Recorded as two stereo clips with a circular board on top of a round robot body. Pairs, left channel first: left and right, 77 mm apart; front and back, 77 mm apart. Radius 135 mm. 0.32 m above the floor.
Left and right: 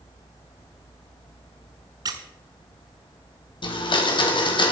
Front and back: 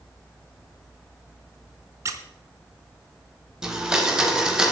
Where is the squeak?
130° right, 0.7 m.